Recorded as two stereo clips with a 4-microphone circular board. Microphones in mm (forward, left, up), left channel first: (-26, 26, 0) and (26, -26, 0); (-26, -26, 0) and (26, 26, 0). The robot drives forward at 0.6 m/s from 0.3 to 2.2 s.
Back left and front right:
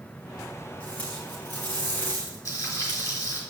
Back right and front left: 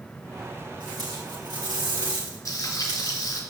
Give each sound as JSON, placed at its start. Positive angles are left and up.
{"t": 0.8, "sound": "tape being pulled", "azimuth_deg": 60, "distance_m": 6.5}
{"t": 2.5, "sound": "frying", "azimuth_deg": 180, "distance_m": 4.5}